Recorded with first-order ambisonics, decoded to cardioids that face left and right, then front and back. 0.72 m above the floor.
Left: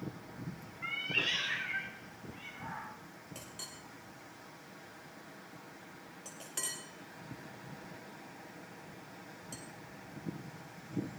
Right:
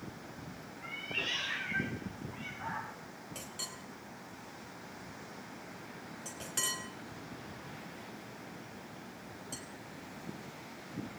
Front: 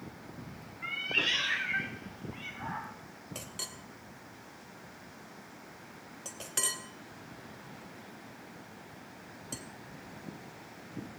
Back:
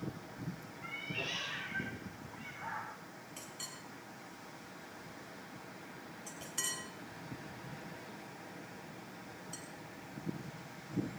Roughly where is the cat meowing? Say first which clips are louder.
Left 4 dB, front 10 dB; ahead left.